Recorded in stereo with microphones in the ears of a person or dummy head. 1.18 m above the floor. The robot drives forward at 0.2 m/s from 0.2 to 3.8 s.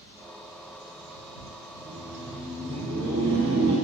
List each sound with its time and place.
1.8 s laughter: 35° right (ahead or behind), 0.7 m; by 3.8 s 20° right (ahead or behind), 1.0 m